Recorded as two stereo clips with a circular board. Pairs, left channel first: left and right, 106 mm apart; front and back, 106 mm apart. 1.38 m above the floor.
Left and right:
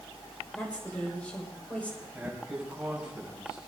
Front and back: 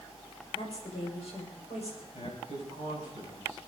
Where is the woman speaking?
15° left, 6.5 m.